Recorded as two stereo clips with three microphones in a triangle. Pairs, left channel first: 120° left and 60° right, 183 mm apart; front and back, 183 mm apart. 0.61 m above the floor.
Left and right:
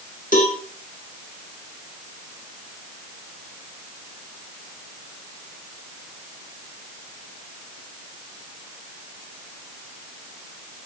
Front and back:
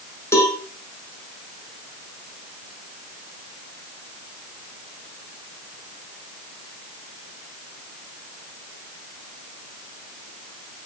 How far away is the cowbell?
About 3.5 m.